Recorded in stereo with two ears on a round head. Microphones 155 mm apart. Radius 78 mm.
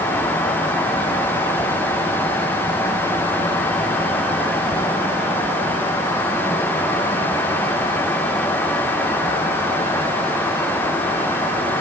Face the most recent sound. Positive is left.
No sound to turn to.